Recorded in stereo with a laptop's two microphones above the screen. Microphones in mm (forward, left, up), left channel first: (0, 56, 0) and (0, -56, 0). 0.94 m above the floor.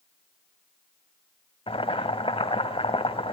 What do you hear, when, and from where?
1.7 s boiling: 55° left (ahead or behind), 1.6 m